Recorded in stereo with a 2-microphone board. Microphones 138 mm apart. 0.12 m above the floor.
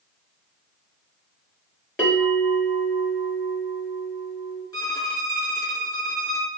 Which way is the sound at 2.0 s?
10° left (ahead or behind).